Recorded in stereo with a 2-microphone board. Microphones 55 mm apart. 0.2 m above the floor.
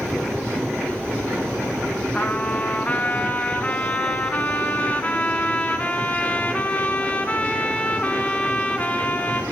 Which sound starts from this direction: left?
A trumpet, at 2.1 s.